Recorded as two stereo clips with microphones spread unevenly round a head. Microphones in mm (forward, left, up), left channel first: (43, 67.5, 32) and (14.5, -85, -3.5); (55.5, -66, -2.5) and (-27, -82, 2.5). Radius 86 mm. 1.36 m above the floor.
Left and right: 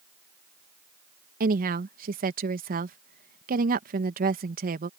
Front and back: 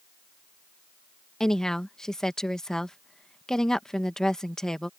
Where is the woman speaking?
75° right.